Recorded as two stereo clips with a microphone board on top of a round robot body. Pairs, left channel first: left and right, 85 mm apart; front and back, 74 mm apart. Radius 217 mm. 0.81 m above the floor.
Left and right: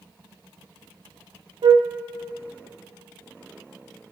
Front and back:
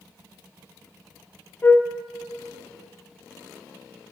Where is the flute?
60° right, 1.2 m.